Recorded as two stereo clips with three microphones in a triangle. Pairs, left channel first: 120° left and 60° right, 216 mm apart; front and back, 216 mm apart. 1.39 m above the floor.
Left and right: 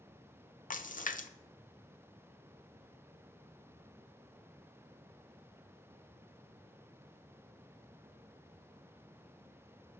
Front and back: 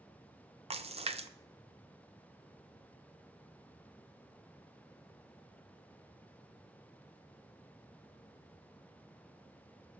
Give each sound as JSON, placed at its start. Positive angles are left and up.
{"t": 0.7, "sound": "a splash", "azimuth_deg": 135, "distance_m": 0.5}